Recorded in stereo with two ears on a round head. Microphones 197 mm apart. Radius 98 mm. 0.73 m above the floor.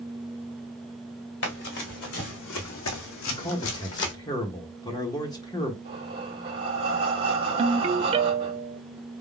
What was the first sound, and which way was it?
Running footsteps, 55° left (ahead or behind).